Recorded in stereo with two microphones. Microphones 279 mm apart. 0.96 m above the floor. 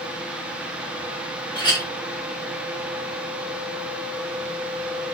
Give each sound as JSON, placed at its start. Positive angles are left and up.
{"t": 1.6, "sound": "a clink", "side_deg": 15, "distance_m": 1.0}